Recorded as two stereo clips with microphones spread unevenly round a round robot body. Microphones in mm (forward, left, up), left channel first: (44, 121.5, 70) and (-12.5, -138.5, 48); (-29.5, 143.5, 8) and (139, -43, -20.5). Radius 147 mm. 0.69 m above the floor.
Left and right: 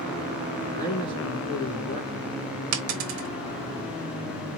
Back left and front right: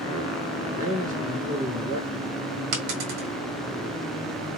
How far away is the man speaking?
About 2.5 m.